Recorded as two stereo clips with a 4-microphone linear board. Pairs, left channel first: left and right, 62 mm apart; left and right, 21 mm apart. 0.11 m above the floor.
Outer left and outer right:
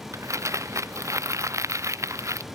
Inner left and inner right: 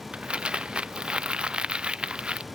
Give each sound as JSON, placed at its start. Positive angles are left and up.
{"t": 0.1, "sound": "crumpling", "side_deg": -55}